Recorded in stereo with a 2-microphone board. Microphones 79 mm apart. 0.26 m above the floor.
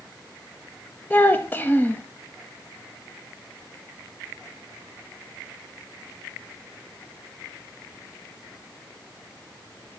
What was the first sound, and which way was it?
A child speaking, 25° left (ahead or behind).